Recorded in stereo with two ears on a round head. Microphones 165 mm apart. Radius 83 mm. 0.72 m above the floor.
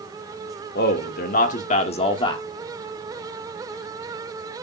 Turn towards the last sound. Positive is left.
turn(degrees=25)  # may be behind; listen again after turning